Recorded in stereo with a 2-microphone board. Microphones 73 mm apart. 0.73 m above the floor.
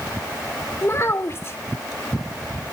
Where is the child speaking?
35° left (ahead or behind), 1.6 m.